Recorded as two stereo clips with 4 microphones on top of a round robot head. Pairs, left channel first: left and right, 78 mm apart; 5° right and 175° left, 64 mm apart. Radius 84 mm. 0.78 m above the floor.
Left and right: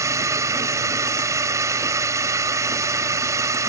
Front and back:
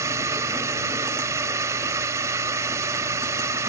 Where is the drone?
140° right.